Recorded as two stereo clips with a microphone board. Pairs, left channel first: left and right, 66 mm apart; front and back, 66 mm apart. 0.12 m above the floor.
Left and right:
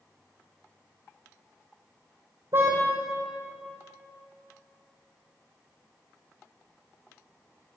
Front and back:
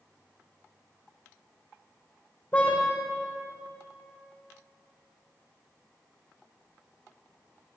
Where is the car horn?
65° right, 5 m.